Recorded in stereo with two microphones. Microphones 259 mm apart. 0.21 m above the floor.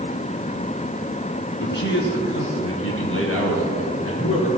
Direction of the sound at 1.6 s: 45° left (ahead or behind).